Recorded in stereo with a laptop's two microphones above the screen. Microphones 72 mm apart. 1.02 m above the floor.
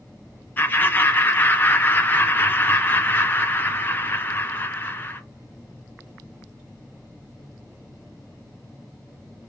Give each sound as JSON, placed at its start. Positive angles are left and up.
{"t": 0.6, "sound": "laughter", "side_deg": 30, "distance_m": 0.7}